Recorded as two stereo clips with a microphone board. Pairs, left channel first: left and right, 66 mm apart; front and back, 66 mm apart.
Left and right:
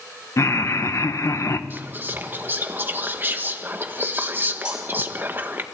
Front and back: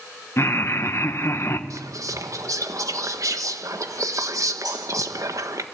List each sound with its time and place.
0.4 s laughter: 50° left, 1.5 m
1.7 s whispering: 145° right, 1.4 m
4.7 s cutlery clinking: 165° right, 7 m